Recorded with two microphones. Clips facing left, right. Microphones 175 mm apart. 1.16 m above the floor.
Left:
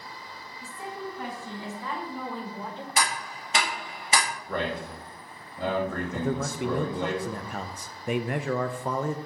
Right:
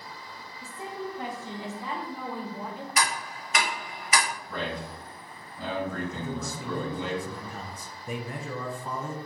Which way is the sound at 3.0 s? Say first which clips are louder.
Left 1 dB; 30° left (ahead or behind).